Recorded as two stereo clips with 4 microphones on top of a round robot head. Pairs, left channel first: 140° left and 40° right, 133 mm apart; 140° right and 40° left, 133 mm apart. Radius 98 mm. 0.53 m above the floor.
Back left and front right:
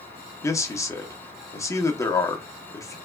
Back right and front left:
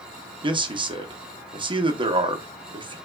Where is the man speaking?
80° left, 0.9 m.